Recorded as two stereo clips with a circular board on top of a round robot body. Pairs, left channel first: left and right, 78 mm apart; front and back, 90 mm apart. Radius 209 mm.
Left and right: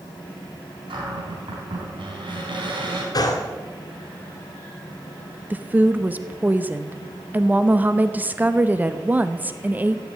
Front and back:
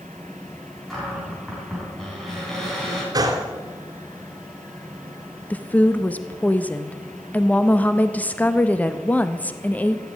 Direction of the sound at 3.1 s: 130° left.